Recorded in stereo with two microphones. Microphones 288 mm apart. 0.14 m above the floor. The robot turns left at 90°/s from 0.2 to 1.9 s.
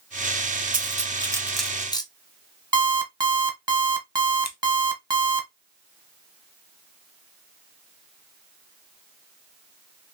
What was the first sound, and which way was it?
Cutlery clinking, 30° right (ahead or behind).